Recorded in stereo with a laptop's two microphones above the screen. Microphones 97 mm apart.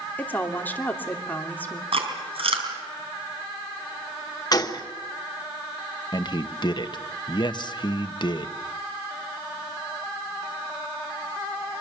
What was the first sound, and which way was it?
A woman speaking, 20° left (ahead or behind).